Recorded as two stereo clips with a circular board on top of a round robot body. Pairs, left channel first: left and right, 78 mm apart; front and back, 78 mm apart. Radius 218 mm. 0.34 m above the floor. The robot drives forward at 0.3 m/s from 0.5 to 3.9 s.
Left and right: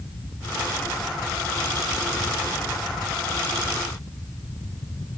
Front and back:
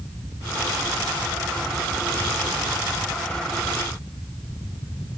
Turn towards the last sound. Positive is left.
No sound to turn to.